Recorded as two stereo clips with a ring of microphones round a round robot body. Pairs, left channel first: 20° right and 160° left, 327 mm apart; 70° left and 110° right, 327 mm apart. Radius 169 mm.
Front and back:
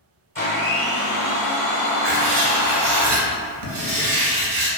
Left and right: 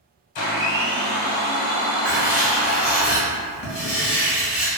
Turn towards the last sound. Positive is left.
turn(degrees=160)